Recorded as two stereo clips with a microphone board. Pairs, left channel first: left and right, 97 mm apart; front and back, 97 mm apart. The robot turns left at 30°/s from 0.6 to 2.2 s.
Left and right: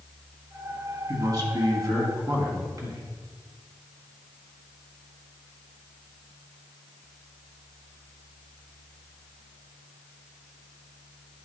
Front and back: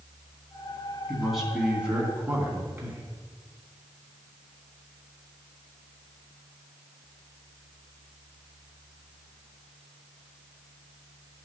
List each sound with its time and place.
1.1 s a man speaking: 85° right, 2 m; by 3.0 s 120° right, 2 m